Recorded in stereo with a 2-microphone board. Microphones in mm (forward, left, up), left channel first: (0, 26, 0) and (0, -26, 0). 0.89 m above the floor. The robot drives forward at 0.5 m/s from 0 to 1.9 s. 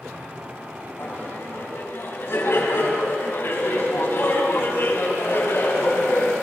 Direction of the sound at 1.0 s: 50° left (ahead or behind).